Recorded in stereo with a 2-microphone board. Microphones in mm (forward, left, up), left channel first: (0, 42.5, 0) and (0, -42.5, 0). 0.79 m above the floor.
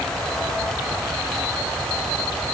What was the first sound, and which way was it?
Only background noise.